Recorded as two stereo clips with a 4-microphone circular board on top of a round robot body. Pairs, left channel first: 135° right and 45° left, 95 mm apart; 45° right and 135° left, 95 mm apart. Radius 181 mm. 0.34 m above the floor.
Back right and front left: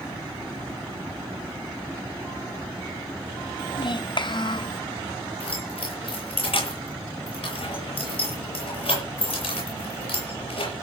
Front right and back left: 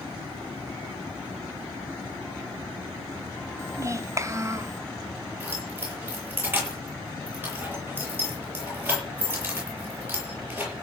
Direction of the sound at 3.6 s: 170° right.